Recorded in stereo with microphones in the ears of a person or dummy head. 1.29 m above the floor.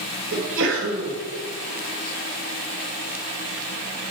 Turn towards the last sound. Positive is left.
turn(degrees=-70)  # may be behind; listen again after turning